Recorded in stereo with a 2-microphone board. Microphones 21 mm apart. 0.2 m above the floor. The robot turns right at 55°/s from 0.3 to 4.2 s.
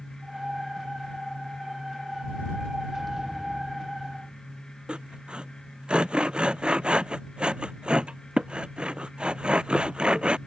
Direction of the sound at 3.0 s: 5° left.